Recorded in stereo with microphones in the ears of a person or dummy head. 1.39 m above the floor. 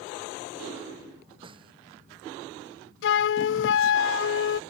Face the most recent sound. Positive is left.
turn(degrees=70)  # may be behind; listen again after turning